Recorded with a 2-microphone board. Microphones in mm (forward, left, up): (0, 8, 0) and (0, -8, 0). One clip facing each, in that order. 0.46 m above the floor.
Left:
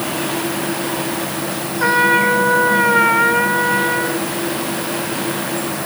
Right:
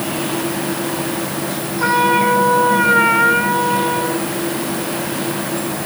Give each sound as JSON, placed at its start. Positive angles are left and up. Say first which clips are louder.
{"t": 1.8, "sound": "a trumpet", "louder": "left 1 dB", "side_deg": 5, "distance_m": 3.0}